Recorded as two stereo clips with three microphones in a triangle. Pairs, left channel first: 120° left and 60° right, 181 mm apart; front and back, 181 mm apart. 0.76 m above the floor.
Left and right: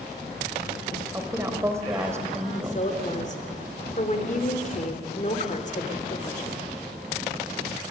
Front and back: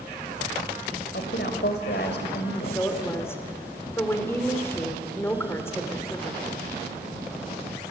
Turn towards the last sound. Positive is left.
turn(degrees=75)